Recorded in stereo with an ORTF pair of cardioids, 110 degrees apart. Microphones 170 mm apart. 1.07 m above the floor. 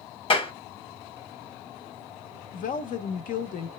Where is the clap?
30° left, 1.0 m.